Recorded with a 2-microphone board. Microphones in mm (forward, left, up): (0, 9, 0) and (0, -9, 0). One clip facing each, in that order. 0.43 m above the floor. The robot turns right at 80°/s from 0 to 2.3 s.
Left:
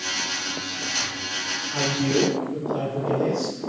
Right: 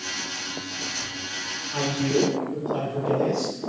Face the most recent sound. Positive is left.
turn(degrees=-115)